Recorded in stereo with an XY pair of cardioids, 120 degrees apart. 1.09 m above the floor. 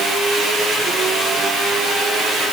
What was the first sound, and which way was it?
Only background noise.